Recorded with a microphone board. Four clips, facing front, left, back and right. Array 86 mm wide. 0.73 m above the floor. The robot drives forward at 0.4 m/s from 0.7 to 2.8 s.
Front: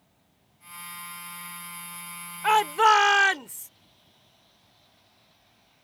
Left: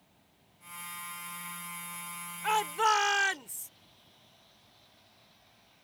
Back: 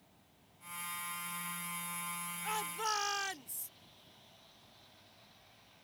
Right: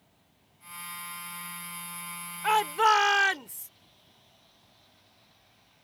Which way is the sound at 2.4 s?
15° right.